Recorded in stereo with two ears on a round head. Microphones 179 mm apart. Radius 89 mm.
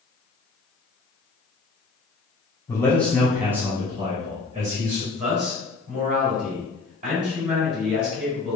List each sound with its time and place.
2.7 s a man speaking: 15° left (ahead or behind), 1.1 m; by 5.0 s 40° right (ahead or behind), 1.6 m
5.1 s a man speaking: 35° right (ahead or behind), 1.9 m